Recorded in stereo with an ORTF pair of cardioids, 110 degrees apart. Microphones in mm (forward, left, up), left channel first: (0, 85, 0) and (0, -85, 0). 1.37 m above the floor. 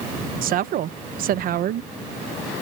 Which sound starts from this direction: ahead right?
A woman speaking, at 0.4 s.